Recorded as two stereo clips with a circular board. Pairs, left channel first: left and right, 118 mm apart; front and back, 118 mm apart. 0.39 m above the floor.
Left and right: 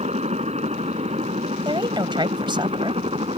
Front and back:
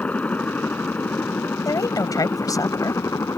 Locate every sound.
0.0 s a helicopter: 75° right; by 3.4 s 65° right
1.6 s a woman speaking: 50° right